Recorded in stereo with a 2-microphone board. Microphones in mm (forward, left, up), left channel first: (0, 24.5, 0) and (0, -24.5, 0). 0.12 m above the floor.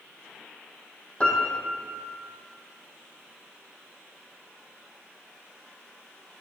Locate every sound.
1.2 s a piano: 25° left (ahead or behind), 1.9 m